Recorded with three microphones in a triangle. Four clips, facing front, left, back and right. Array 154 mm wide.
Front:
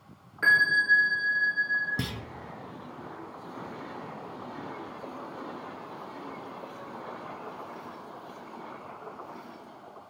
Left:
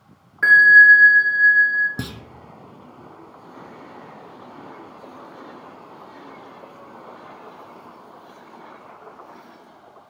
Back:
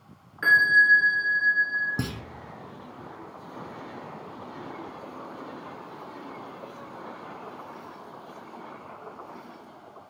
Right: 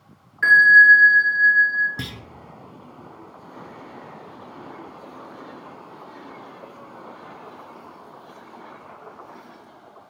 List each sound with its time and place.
0.4 s a bell: 65° left, 1.2 m
2.0 s a clunk: 125° left, 0.5 m